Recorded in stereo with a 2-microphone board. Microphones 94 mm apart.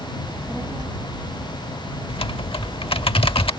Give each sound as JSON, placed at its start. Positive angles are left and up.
{"t": 0.2, "sound": "a child speaking", "side_deg": 0}
{"t": 2.1, "sound": "typing on a keyboard", "side_deg": 75}